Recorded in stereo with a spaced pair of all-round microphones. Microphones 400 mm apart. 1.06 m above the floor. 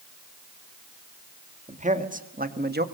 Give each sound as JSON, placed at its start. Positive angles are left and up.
{"t": 1.7, "sound": "a man speaking", "side_deg": -15, "distance_m": 2.0}